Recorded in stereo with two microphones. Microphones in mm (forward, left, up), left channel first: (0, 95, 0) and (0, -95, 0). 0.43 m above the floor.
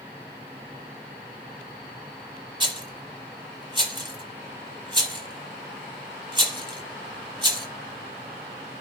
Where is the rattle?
25° right (ahead or behind), 1.0 m.